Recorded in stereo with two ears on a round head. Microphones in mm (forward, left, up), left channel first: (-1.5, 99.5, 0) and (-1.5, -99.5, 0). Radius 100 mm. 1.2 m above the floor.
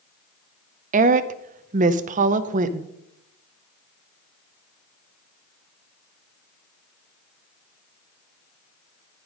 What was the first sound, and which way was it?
A woman speaking, 35° right (ahead or behind).